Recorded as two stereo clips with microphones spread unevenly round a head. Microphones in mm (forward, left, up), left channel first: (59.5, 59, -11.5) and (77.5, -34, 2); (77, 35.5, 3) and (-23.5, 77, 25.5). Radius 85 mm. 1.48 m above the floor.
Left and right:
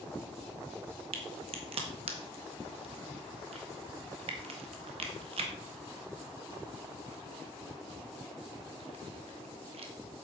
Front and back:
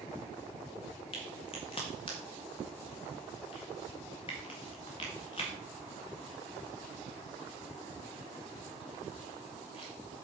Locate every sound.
1.1 s a crack: 90° right, 1.5 m